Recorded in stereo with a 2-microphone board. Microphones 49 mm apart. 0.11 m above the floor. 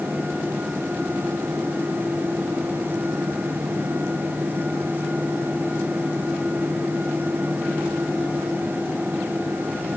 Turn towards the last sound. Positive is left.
No sound to turn to.